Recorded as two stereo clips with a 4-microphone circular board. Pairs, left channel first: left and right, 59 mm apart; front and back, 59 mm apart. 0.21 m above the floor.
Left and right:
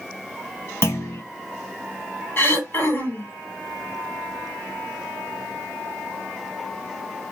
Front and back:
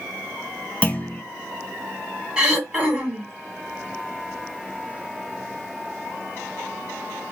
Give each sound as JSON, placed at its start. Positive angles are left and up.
{"t": 0.8, "sound": "a clunk", "azimuth_deg": 60, "distance_m": 1.0}
{"t": 2.4, "sound": "throat clearing", "azimuth_deg": 115, "distance_m": 2.0}